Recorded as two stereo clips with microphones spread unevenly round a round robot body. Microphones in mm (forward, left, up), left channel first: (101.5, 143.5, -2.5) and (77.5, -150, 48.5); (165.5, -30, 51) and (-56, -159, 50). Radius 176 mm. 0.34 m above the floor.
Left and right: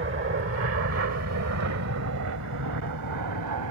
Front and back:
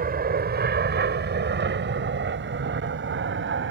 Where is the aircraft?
130° right; by 3.7 s 120° right.